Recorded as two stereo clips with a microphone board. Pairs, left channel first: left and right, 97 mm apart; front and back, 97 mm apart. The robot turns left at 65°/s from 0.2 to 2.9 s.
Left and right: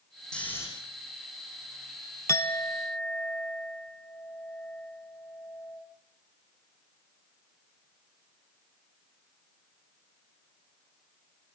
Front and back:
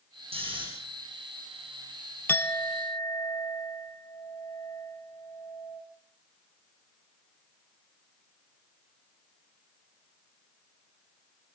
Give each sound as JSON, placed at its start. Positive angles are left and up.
{"t": 0.3, "sound": "snoring", "azimuth_deg": 170, "distance_m": 7.5}
{"t": 2.3, "sound": "a clink", "azimuth_deg": 50, "distance_m": 0.7}